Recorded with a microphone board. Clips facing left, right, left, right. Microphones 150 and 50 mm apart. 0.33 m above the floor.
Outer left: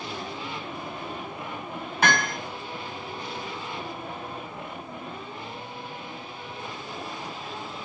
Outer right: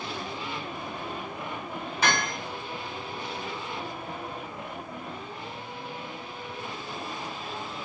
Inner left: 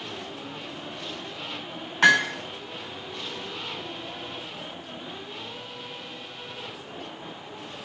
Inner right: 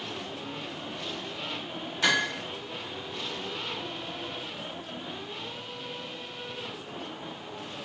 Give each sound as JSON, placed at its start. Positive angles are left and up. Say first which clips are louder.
{"t": 2.0, "sound": "hammering", "louder": "outer left 3 dB, inner left 7 dB", "side_deg": 55, "distance_m": 1.7}